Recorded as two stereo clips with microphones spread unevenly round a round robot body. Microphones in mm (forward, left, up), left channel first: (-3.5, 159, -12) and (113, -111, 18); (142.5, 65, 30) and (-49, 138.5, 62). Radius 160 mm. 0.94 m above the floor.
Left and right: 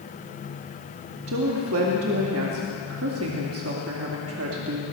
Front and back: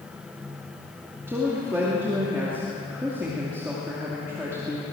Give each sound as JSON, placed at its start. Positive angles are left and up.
{"t": 1.3, "sound": "a woman speaking", "azimuth_deg": -115, "distance_m": 2.0}